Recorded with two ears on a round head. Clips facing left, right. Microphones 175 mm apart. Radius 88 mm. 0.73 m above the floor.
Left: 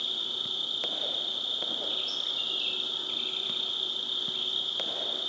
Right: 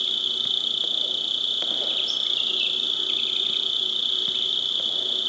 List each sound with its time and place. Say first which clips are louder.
0.0 s an insect: right 4 dB; 40° right (ahead or behind), 0.8 m